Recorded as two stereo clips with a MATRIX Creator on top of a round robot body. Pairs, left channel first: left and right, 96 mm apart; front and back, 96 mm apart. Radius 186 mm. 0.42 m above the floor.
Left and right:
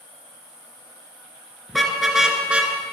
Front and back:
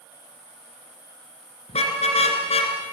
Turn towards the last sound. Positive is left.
turn(degrees=-15)